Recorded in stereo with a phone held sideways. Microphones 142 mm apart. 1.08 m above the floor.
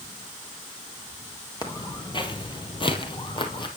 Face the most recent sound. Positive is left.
turn(degrees=35)  # may be behind; listen again after turning